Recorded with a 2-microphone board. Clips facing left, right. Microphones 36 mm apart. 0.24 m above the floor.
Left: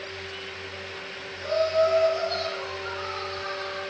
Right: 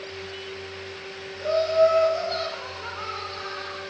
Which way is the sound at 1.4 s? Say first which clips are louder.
Right 3 dB; 45° right (ahead or behind).